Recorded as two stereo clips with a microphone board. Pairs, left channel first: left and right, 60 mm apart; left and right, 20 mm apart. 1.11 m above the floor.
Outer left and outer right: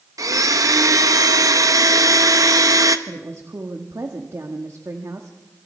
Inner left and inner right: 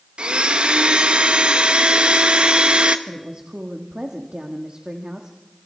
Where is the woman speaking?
55° right (ahead or behind), 1.6 m.